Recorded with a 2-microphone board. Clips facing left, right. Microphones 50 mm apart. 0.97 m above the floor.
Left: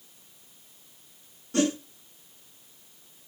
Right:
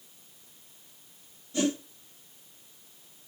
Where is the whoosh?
75° left (ahead or behind), 5.5 m.